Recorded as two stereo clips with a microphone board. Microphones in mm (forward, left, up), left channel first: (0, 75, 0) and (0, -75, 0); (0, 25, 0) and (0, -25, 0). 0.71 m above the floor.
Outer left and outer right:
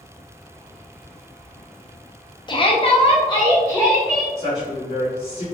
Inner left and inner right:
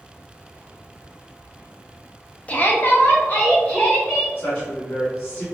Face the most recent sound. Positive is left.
turn(degrees=20)  # may be behind; listen again after turning